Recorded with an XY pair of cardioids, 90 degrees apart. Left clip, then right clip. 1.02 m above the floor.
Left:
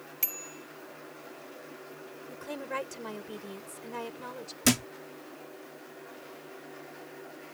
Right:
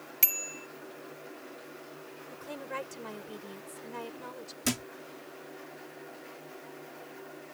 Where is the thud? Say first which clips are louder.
Left 6 dB; 50° left.